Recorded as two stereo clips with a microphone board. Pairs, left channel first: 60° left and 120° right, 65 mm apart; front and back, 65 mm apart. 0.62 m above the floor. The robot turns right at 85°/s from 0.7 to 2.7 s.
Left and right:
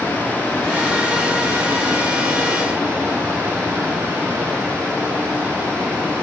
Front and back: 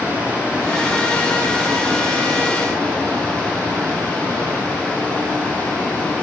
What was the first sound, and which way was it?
Running water, 115° left.